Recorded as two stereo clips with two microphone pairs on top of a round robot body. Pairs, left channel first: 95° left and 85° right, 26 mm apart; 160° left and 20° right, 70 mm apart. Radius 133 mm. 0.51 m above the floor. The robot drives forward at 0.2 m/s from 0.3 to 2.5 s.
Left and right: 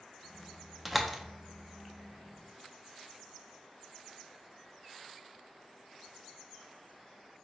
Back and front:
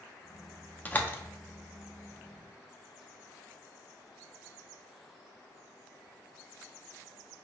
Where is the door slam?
170° right, 0.6 m.